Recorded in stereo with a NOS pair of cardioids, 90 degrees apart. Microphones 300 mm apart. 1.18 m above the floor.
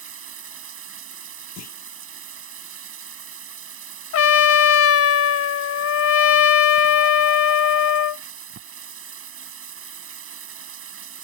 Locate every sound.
0.0 s running water: 50° right
1.6 s a clunk: 65° left
4.1 s a trumpet: 55° left